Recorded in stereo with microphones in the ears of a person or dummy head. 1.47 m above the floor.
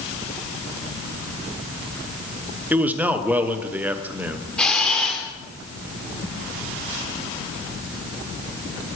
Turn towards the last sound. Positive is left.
turn(degrees=10)  # may be behind; listen again after turning